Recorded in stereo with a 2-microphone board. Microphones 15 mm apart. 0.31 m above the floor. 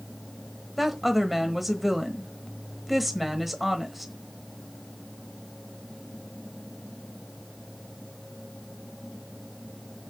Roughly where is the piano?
I don't hear a piano.